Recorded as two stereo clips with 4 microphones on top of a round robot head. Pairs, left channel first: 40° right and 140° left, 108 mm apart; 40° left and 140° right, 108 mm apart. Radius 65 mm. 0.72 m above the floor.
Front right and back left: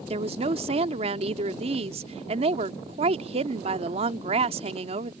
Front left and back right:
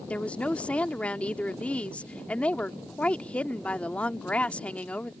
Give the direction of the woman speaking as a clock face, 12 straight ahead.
8 o'clock.